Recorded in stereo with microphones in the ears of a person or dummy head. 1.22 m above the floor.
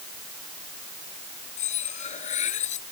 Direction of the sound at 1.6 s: 40° left (ahead or behind).